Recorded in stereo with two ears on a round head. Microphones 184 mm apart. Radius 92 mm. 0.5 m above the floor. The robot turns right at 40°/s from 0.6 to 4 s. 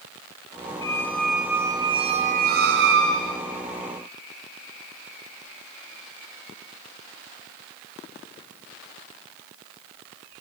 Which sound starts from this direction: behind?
A squeak, at 0.8 s.